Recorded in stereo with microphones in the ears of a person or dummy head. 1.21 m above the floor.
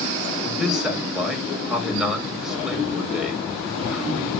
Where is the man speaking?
Centre (ahead or behind), 4 m.